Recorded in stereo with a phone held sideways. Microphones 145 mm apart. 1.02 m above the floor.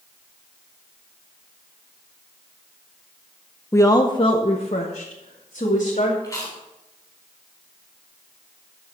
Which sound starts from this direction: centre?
A woman speaking, at 3.7 s.